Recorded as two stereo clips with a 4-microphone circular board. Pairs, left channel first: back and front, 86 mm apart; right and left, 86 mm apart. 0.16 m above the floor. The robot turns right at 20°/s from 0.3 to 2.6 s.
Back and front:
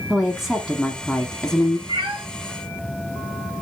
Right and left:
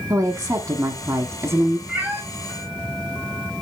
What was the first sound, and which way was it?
A woman speaking, 85° left.